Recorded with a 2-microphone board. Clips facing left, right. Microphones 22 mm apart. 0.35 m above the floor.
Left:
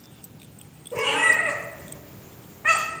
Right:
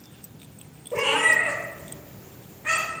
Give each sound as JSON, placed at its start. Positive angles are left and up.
{"t": 0.9, "sound": "a cat meowing", "side_deg": -15, "distance_m": 0.7}